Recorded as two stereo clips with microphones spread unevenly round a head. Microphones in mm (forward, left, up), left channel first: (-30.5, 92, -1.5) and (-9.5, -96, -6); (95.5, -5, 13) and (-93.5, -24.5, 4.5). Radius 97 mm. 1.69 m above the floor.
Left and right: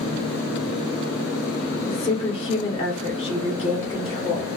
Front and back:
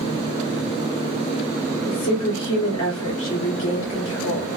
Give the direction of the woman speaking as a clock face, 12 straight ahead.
11 o'clock.